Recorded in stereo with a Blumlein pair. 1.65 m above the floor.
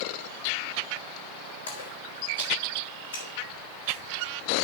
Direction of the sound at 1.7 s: 65° left.